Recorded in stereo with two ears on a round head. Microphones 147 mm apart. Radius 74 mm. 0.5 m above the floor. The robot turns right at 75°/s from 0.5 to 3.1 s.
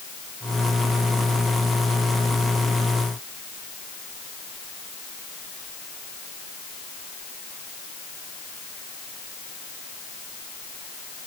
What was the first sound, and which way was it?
Only background noise.